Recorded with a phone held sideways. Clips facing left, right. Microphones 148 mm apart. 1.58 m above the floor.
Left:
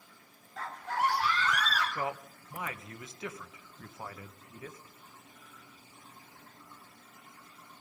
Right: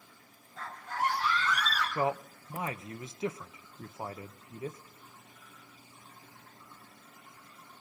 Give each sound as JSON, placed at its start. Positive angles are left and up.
{"t": 0.6, "sound": "a scream", "side_deg": 85, "distance_m": 5.0}
{"t": 1.9, "sound": "a man speaking", "side_deg": -25, "distance_m": 1.2}